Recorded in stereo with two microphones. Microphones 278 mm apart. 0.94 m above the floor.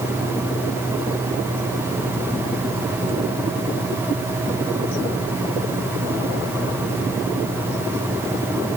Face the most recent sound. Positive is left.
No sound to turn to.